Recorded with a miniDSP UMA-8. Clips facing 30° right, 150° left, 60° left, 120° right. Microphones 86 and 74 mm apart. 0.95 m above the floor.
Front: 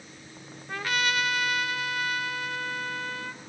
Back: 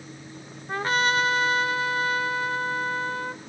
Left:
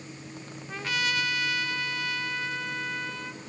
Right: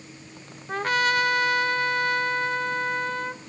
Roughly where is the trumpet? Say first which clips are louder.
Back 5 dB, right 7 dB; behind.